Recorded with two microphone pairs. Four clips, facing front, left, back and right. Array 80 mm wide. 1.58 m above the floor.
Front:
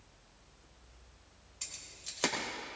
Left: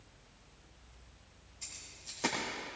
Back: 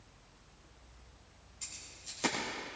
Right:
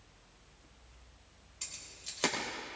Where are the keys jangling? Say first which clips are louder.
Right 2 dB, front 1 dB; 25° right, 4 m.